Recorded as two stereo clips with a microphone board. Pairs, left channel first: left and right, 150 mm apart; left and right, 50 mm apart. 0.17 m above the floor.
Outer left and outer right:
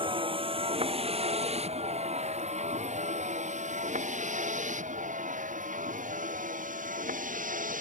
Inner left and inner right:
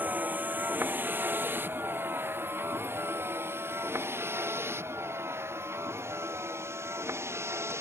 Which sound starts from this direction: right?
A vehicle, at 0.0 s.